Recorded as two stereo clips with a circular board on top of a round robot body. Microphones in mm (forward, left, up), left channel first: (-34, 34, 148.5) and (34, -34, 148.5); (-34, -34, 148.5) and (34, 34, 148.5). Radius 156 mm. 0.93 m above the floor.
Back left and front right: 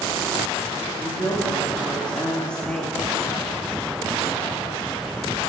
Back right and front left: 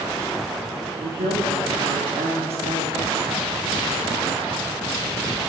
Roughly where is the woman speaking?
Ahead left.